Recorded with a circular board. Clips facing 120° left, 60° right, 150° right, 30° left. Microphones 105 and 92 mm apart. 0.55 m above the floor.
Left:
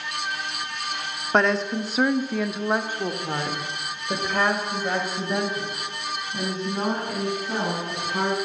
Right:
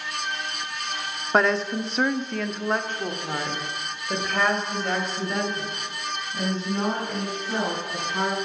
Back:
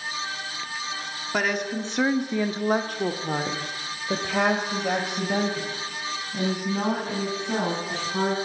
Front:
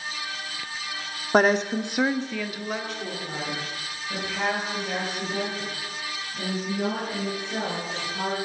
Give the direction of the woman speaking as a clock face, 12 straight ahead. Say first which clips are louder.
Even, front 6 dB; 11 o'clock.